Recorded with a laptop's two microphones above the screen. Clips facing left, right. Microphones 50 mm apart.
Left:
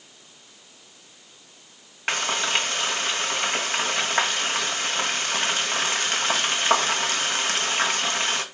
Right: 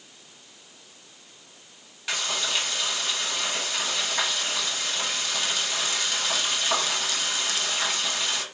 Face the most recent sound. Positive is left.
turn(degrees=50)  # may be behind; listen again after turning